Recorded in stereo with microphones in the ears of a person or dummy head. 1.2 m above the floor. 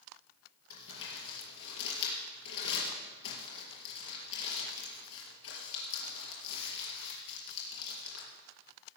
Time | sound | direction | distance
0.7 | crumpling | 75° left (ahead or behind) | 4.5 m